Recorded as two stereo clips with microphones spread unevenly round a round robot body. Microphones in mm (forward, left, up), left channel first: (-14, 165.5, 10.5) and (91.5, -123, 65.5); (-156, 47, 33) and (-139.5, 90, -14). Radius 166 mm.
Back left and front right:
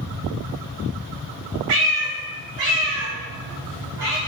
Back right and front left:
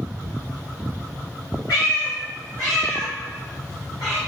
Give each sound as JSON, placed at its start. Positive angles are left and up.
{"t": 1.7, "sound": "a cat meowing", "azimuth_deg": -85, "distance_m": 0.5}